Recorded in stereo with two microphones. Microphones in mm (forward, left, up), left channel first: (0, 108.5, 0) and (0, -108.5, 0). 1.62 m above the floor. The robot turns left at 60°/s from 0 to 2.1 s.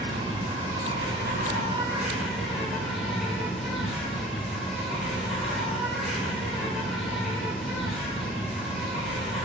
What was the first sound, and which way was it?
An insect, 55° right.